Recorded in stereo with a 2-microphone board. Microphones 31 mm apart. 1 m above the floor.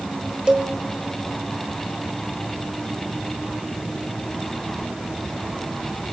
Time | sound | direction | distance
0.5 | a cowbell | 30° right (ahead or behind) | 1.5 m